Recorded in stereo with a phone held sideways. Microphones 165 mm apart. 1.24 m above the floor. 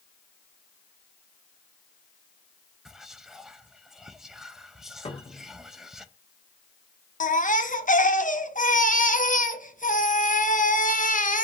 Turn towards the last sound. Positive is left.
turn(degrees=55)  # may be behind; listen again after turning